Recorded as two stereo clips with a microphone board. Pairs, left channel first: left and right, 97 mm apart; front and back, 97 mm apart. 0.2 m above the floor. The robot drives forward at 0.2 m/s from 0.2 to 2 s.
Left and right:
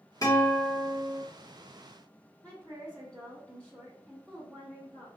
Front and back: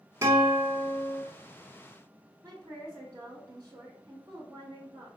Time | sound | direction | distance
0.2 | a guitar | 130° left | 1.7 m
2.4 | a woman speaking | 165° left | 2.0 m